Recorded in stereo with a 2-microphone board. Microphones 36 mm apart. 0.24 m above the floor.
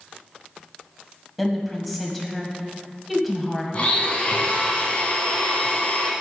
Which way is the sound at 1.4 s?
Centre (ahead or behind).